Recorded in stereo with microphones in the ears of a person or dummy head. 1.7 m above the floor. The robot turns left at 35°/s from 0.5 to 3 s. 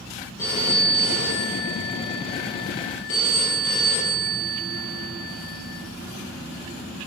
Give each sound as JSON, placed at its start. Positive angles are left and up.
{"t": 0.4, "sound": "a phone ringing", "azimuth_deg": 160, "distance_m": 1.3}